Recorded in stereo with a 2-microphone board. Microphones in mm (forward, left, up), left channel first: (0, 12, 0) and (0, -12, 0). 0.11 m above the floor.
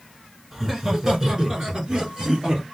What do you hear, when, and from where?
0.5 s laughter: 15° right (ahead or behind), 1.5 m; by 2.6 s 40° right (ahead or behind), 1.9 m